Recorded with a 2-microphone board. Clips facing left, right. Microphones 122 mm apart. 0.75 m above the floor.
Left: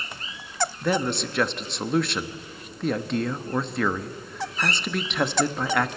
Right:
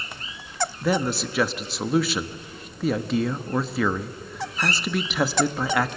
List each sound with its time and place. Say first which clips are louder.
0.8 s a man speaking: right 2 dB; 5° right (ahead or behind), 0.9 m